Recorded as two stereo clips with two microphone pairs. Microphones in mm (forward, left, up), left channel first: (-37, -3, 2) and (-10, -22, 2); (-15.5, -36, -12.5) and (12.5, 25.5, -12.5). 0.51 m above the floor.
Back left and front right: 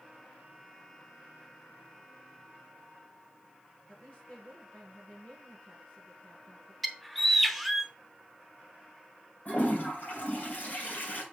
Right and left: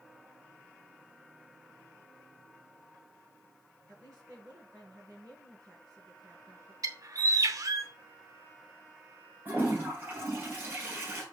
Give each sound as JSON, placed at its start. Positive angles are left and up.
{"t": 3.9, "sound": "a woman speaking", "azimuth_deg": 100, "distance_m": 5.5}
{"t": 6.8, "sound": "a bird", "azimuth_deg": 60, "distance_m": 0.7}
{"t": 9.4, "sound": "a toilet flushing", "azimuth_deg": 125, "distance_m": 3.0}